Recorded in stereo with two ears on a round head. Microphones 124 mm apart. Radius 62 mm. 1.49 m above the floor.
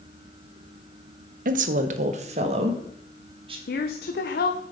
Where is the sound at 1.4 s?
65° right (ahead or behind), 0.8 m; by 3.6 s 40° right (ahead or behind), 2.5 m.